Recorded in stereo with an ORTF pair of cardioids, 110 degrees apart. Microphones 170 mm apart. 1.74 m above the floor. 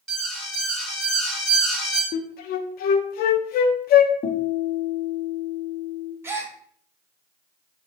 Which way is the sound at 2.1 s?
65° left.